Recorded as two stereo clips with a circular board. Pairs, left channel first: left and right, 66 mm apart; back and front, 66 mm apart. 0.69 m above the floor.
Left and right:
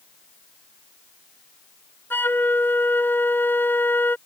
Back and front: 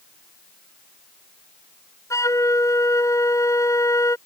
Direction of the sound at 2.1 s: 145° left.